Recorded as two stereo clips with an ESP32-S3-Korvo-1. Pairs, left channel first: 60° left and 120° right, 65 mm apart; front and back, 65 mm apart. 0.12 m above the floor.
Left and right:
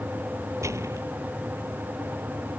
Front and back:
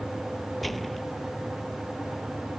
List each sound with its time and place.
0.6 s a gunshot: 90° right